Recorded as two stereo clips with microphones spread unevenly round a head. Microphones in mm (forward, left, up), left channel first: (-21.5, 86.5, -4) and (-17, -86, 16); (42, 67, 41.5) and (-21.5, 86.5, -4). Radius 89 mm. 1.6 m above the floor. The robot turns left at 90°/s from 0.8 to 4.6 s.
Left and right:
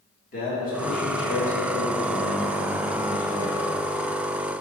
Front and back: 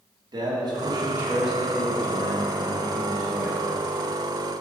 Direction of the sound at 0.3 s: 135° left.